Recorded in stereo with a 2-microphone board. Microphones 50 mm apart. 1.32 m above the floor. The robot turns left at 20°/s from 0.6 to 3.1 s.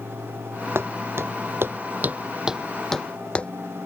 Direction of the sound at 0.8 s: 50° right (ahead or behind).